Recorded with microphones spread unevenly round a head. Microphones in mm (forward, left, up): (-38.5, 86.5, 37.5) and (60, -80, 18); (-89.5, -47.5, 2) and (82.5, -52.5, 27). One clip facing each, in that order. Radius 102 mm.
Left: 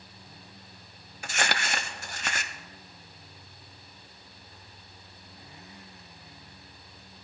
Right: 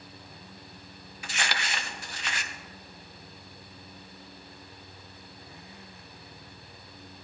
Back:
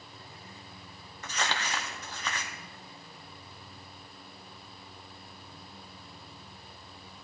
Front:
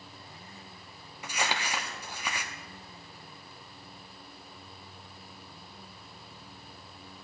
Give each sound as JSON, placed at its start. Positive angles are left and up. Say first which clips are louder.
{"t": 1.2, "sound": "crumpling", "louder": "left 4 dB, front 1 dB", "azimuth_deg": 85, "distance_m": 0.7}